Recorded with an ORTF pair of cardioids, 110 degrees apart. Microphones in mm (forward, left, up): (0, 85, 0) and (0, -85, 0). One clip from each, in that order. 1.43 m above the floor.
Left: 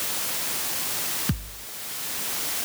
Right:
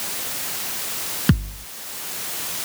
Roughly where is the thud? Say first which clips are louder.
Right 9 dB; ahead right.